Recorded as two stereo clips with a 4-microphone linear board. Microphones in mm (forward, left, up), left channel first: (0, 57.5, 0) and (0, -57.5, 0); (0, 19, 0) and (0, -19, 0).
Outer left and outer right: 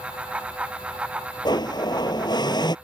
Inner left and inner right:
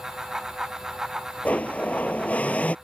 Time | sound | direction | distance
1.4 | a blender | 40° left (ahead or behind) | ?